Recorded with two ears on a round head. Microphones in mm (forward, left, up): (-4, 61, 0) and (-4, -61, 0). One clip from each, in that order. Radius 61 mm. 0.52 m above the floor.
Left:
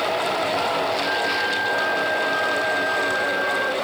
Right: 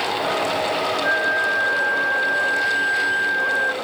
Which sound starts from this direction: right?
A flute, at 1.0 s.